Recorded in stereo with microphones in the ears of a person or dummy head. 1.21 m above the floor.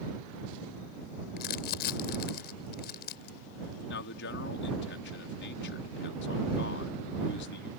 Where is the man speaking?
70° left (ahead or behind).